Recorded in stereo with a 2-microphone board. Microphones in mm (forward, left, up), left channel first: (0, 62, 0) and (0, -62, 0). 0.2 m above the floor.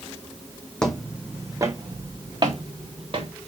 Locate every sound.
0.8 s footsteps: 5° left (ahead or behind), 0.6 m; by 3.3 s 50° right (ahead or behind), 1.6 m